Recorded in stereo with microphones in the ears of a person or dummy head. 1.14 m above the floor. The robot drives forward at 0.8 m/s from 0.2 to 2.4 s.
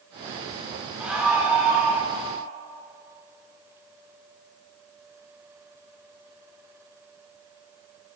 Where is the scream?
5° right (ahead or behind), 3 m.